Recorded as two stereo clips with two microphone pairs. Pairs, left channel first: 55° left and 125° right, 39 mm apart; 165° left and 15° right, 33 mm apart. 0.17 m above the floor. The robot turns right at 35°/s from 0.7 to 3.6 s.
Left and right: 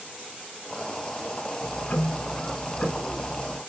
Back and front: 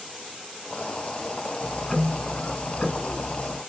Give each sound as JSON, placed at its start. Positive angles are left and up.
{"t": 1.6, "sound": "ticking", "azimuth_deg": 70, "distance_m": 0.5}